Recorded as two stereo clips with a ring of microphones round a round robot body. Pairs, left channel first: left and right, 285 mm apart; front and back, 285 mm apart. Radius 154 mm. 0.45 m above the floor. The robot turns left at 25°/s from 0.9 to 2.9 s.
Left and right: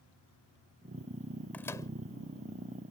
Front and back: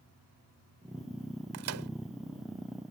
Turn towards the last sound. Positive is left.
turn(degrees=140)